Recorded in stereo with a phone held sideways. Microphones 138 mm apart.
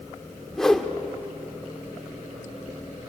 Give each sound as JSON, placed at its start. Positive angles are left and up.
{"t": 0.5, "sound": "a whoosh", "side_deg": 5, "distance_m": 1.1}